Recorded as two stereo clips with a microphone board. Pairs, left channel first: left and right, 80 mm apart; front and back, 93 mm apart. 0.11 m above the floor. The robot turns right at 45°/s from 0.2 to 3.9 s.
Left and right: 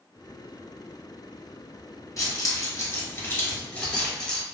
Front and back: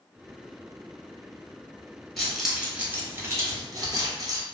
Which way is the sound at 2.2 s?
90° left.